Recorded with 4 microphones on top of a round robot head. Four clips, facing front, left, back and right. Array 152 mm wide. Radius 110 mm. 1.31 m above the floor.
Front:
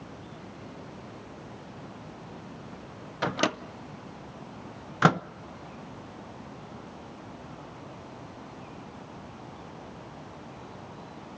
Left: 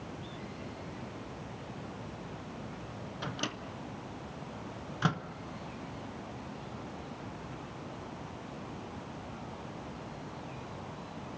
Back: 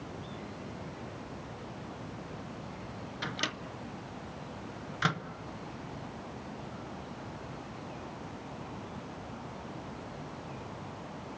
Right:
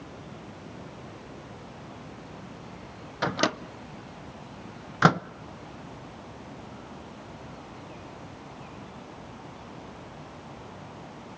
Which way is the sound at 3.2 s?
50° right.